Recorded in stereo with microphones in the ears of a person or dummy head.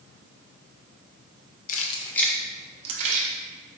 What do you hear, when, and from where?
1.7 s keys jangling: 45° left (ahead or behind), 0.6 m; by 3.3 s 50° right (ahead or behind), 0.9 m